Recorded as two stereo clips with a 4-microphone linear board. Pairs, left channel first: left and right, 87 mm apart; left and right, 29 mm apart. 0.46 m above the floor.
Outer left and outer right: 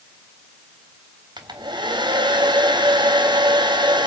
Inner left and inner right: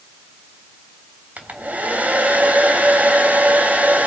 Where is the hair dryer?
65° right (ahead or behind), 3 m.